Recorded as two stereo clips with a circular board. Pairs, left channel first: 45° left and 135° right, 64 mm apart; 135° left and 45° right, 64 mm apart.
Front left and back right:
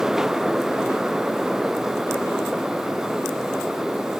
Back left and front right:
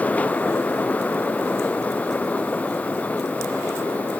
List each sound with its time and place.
Only background noise.